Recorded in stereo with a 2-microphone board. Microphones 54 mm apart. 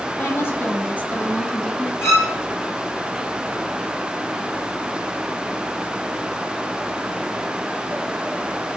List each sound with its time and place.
0.2 s a woman speaking: 50° left (ahead or behind), 1.7 m; by 1.9 s 10° left (ahead or behind), 1.4 m
2.0 s a violin: 60° left (ahead or behind), 3 m